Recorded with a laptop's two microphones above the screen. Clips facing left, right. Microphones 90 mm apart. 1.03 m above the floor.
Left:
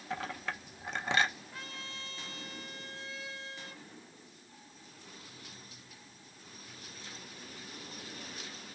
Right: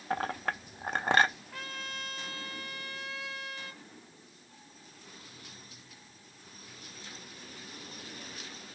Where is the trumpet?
70° right (ahead or behind), 2.0 m.